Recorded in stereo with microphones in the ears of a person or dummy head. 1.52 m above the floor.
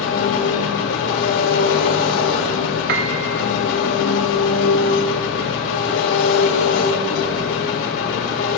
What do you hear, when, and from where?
0.0 s an engine running: 75° left (ahead or behind), 2 m
2.9 s a piano: 65° right (ahead or behind), 0.7 m